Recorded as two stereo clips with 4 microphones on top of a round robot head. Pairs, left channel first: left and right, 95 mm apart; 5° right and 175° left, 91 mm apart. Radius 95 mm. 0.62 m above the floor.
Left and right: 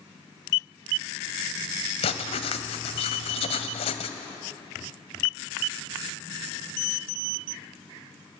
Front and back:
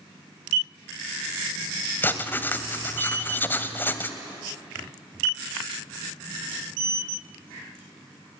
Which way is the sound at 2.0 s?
60° left.